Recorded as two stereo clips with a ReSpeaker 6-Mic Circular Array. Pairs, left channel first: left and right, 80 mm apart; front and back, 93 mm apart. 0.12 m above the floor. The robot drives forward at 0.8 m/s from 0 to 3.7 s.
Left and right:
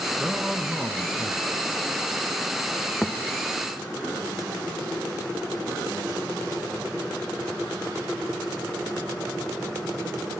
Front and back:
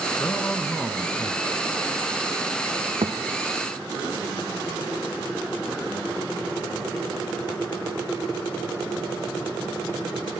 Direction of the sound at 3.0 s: 170° left.